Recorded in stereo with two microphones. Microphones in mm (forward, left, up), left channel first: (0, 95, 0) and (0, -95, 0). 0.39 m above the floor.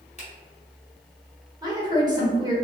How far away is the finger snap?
About 1.4 m.